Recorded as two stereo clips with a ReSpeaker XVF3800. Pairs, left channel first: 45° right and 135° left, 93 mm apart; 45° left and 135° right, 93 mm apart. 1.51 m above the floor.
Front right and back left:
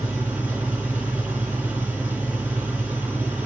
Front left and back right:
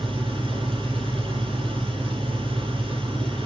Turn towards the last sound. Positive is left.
turn(degrees=-155)